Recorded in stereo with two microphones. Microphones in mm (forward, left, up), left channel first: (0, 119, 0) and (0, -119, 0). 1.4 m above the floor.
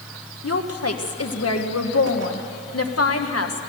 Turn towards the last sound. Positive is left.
turn(degrees=85)